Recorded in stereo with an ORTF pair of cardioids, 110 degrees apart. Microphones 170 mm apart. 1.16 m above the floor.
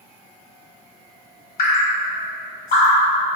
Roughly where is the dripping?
Ahead left.